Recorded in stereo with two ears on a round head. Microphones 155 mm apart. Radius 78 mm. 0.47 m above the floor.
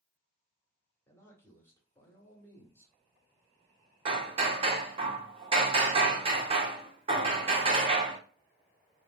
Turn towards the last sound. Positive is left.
turn(degrees=-35)  # may be behind; listen again after turning